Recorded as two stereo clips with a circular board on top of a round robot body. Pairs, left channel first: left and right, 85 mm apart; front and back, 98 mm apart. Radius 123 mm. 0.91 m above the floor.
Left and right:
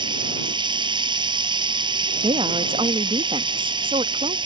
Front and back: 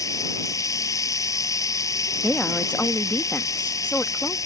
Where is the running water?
60° right.